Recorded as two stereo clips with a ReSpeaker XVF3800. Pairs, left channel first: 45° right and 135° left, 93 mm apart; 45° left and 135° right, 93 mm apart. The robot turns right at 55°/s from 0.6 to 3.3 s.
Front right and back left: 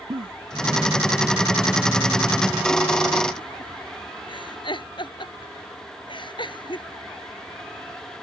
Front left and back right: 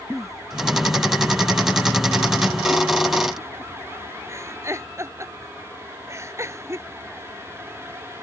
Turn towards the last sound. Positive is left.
turn(degrees=-75)